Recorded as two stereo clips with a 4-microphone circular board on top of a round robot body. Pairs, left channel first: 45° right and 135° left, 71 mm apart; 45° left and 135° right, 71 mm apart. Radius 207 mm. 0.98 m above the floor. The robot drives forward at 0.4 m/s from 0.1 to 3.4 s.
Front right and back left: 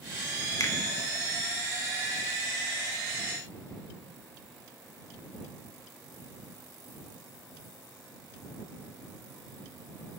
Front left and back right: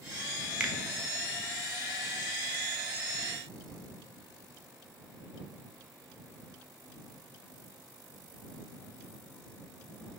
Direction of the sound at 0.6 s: 60° right.